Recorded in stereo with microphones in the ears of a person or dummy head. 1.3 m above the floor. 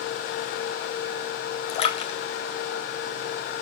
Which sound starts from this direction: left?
A splash, at 1.7 s.